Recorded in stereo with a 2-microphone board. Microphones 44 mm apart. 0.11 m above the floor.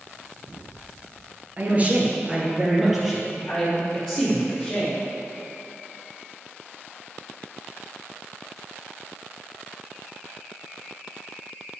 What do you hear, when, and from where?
1.6 s a man speaking: 40° right (ahead or behind), 2 m; by 5.0 s 15° left (ahead or behind), 5.5 m